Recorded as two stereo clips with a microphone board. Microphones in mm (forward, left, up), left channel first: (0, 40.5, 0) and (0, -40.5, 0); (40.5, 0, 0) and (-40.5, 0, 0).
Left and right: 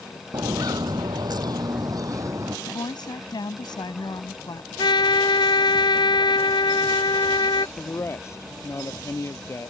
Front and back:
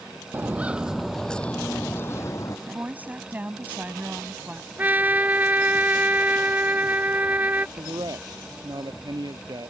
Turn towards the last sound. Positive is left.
turn(degrees=145)